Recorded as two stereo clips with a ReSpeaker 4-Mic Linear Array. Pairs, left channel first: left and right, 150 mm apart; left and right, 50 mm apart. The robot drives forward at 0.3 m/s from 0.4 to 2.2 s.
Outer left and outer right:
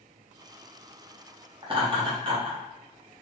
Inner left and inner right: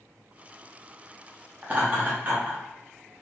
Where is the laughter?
35° right (ahead or behind), 0.8 m.